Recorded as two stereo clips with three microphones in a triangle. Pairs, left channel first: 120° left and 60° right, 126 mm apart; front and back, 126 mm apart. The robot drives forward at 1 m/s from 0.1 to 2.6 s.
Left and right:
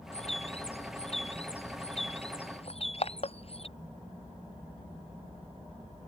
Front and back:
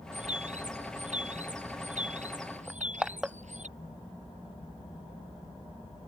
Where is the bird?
155° left; by 3.7 s 160° left.